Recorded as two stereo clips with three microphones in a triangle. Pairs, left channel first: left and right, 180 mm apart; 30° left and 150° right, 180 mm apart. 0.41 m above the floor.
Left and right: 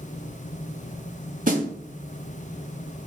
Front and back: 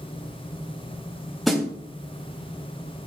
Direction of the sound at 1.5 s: 60° right.